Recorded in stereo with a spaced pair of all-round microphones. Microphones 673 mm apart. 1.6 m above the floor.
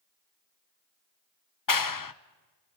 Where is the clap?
30° left (ahead or behind), 0.6 m.